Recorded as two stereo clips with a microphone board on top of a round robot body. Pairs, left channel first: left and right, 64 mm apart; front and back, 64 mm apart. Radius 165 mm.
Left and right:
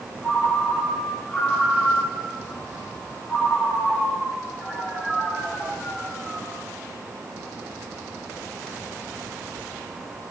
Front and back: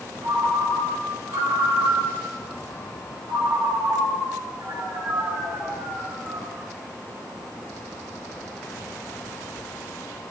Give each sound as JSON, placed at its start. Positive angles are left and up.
{"t": 0.2, "sound": "a ringtone", "azimuth_deg": 170, "distance_m": 7.0}